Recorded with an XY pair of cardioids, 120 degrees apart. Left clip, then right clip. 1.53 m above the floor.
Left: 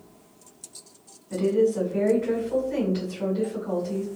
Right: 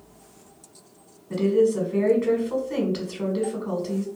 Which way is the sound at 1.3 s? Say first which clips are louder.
Right 2 dB; 55° right.